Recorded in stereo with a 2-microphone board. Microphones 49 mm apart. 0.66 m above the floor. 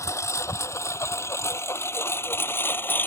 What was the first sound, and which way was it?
A lawn mower, 80° left.